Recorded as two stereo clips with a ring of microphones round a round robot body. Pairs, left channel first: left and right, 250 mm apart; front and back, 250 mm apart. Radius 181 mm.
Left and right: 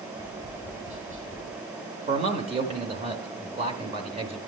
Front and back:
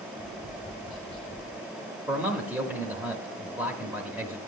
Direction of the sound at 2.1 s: 105° right.